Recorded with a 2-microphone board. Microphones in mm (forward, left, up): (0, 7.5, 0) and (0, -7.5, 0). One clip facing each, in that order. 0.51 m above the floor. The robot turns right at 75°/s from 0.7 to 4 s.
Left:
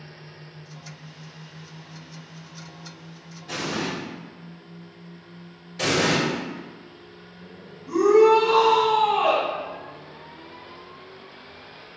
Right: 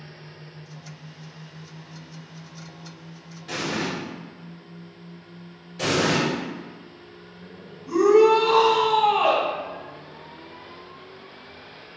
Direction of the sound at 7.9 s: 50° right (ahead or behind).